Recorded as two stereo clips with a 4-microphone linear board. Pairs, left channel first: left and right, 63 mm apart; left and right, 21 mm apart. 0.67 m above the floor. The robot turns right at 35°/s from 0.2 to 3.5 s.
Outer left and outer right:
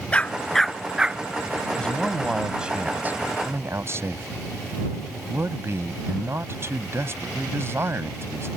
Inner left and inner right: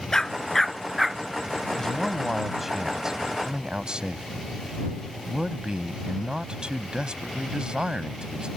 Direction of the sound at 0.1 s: 20° left (ahead or behind).